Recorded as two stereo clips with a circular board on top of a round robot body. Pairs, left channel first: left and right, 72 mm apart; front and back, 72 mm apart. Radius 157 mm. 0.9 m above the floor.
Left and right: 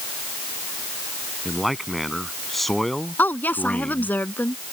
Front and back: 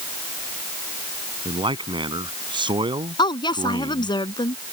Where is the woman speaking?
20° left.